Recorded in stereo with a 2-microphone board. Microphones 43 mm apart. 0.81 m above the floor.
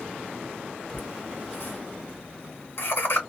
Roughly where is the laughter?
Left.